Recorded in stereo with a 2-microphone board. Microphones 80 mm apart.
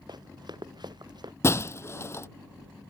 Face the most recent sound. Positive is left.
turn(degrees=35)  # may be behind; listen again after turning